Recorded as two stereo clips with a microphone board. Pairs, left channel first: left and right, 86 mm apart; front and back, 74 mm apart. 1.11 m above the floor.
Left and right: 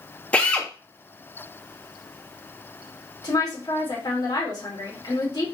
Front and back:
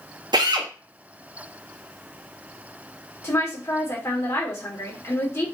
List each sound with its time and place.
0.3 s a drill: 165° left, 0.9 m
3.2 s a woman speaking: 50° left, 2.5 m